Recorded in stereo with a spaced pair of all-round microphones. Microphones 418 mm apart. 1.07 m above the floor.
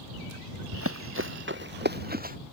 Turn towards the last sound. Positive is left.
turn(degrees=-20)  # may be behind; listen again after turning